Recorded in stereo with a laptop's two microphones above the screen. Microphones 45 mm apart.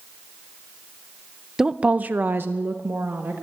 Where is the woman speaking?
10° right (ahead or behind), 0.6 m; by 3.4 s 55° right (ahead or behind), 1.6 m.